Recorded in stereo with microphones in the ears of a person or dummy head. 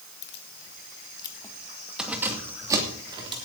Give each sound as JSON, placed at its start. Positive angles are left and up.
{"t": 0.2, "sound": "keys jangling", "side_deg": 65, "distance_m": 1.9}